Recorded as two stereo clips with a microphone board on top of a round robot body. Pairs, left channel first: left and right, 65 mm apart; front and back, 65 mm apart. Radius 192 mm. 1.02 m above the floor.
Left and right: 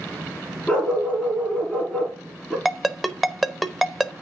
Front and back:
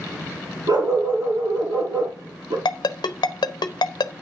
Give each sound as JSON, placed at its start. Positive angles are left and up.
{"t": 0.7, "sound": "a dog barking", "azimuth_deg": 170, "distance_m": 7.5}
{"t": 2.6, "sound": "a ringtone", "azimuth_deg": 0, "distance_m": 0.9}